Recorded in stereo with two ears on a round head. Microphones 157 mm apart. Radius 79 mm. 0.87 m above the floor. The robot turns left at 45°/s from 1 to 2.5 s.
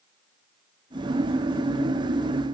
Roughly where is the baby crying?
I don't hear a baby crying.